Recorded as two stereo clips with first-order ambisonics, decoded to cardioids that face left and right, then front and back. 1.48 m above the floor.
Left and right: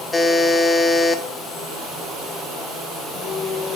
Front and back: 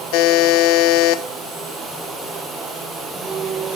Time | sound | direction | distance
0.1 | a buzzer | 10° left | 1.3 m